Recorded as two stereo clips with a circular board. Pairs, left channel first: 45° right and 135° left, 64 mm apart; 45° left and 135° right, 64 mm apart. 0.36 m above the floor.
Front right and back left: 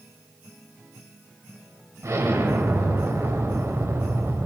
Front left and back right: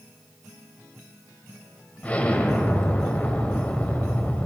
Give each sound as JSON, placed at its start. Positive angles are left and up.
{"t": 2.0, "sound": "an explosion", "azimuth_deg": 110, "distance_m": 0.8}